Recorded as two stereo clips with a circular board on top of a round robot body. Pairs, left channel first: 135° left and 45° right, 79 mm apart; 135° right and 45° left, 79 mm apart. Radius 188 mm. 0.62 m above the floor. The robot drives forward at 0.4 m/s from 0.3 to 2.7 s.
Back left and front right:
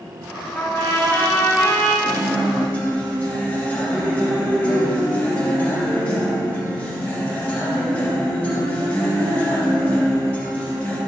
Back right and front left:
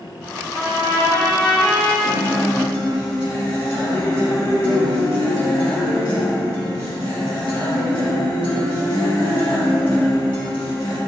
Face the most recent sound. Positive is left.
turn(degrees=-155)